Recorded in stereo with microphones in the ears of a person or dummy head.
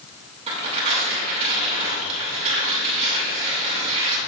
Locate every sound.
0.5 s tearing paper: 30° right (ahead or behind), 2 m